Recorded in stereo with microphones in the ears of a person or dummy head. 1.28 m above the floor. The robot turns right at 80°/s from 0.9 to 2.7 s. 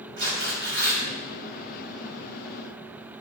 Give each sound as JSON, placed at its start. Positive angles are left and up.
{"t": 0.2, "sound": "tearing paper", "side_deg": -60, "distance_m": 3.0}